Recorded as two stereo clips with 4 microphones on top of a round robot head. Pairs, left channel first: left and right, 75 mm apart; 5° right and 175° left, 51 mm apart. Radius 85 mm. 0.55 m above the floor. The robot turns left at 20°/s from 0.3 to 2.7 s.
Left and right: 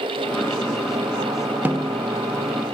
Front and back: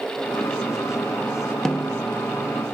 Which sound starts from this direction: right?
A snare drum, at 1.6 s.